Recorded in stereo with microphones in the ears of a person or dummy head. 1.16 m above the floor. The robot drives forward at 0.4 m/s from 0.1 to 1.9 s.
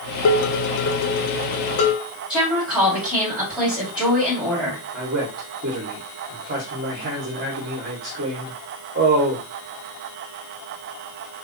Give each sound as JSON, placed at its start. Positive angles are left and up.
{"t": 0.2, "sound": "dishes clattering", "side_deg": 75, "distance_m": 0.6}
{"t": 2.3, "sound": "a woman speaking", "side_deg": 0, "distance_m": 1.7}
{"t": 4.9, "sound": "a man speaking", "side_deg": -50, "distance_m": 0.9}